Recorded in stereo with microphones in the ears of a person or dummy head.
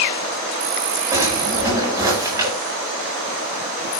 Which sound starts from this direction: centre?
A drawer, at 1.1 s.